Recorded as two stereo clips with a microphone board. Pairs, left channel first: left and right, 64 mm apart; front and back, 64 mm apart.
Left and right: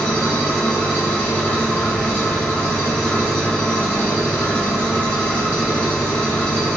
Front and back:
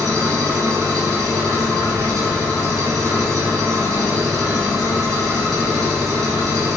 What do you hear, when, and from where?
0.0 s an engine running: 160° left, 1.4 m